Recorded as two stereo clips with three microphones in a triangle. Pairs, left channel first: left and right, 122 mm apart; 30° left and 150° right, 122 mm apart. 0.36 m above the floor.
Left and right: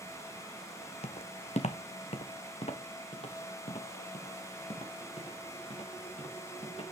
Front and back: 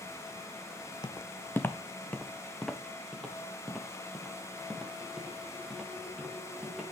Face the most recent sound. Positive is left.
turn(degrees=125)